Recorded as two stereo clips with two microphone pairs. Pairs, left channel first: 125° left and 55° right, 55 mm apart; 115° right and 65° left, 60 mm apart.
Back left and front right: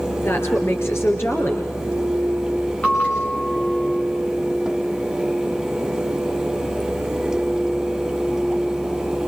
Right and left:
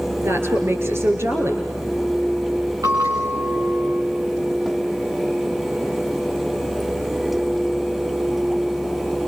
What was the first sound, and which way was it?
A woman speaking, 100° left.